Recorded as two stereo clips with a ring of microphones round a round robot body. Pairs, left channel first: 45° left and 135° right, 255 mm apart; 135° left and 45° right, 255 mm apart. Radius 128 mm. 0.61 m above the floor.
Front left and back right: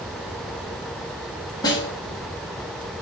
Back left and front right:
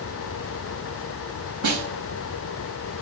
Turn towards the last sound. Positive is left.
turn(degrees=-30)